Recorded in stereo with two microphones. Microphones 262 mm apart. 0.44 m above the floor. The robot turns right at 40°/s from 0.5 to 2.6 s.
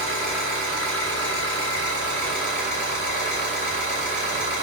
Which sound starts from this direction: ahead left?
An engine running, at 0.0 s.